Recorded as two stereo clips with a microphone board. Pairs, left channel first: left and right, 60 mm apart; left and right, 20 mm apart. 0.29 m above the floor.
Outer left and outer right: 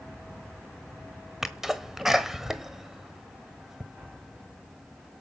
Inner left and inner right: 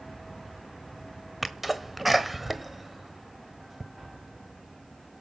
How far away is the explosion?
About 9 m.